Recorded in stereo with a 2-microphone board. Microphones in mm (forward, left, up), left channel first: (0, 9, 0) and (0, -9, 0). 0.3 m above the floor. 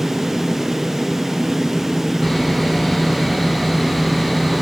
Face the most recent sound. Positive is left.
turn(degrees=10)  # may be behind; listen again after turning